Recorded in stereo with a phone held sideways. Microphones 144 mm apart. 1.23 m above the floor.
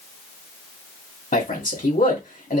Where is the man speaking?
80° left, 2 m.